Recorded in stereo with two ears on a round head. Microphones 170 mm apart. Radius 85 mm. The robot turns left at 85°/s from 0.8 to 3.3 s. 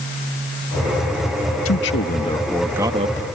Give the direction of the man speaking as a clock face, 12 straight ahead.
9 o'clock.